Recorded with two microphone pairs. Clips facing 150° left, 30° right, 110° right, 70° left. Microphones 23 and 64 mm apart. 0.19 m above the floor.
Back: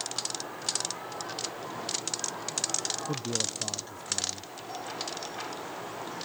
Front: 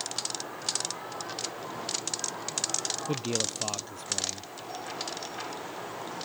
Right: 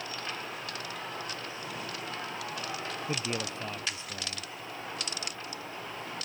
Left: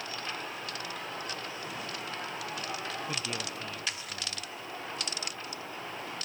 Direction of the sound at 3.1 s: 45° right.